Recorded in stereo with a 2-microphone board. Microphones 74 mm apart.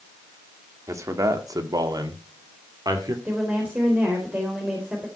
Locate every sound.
0.9 s a man speaking: 45° right (ahead or behind), 2 m; by 3.1 s 55° right (ahead or behind), 2.5 m
3.2 s a woman speaking: 20° right (ahead or behind), 3.5 m